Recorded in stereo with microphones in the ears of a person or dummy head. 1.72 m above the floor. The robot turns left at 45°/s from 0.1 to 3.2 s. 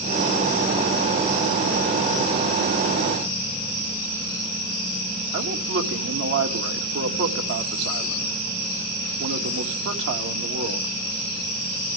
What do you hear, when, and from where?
5.3 s a man speaking: 80° right, 2.5 m